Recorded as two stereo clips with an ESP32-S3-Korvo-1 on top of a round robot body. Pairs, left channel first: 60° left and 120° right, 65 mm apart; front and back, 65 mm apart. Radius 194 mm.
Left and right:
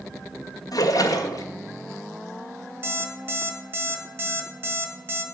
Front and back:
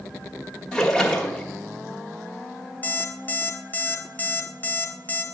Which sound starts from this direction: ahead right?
An alarm clock, at 2.8 s.